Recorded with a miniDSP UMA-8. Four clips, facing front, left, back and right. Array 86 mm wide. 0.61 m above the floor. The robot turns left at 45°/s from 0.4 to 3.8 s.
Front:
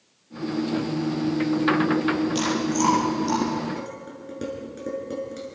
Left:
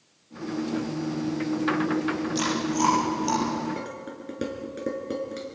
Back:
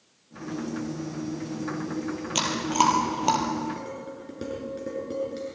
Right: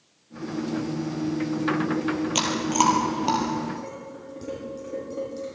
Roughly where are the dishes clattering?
Left.